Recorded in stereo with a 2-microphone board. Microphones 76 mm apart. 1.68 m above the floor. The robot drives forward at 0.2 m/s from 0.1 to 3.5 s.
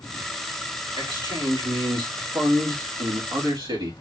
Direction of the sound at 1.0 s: 85° right.